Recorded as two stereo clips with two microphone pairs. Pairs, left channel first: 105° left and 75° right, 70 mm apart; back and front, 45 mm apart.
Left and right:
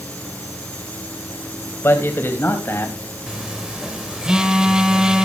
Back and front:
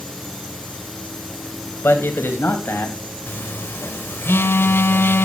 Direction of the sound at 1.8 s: 160° left.